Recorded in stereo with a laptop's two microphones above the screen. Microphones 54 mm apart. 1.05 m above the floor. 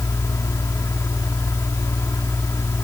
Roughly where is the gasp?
I don't hear a gasp.